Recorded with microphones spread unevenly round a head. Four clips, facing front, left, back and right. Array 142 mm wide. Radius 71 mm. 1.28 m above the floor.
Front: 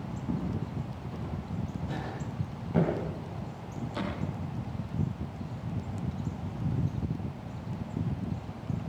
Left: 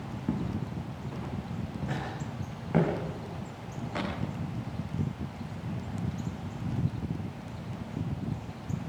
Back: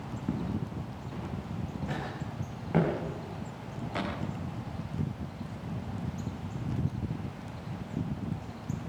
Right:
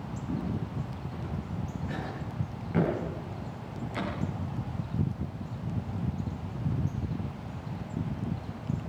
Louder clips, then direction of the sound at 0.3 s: Left 1 dB, even; 135° left.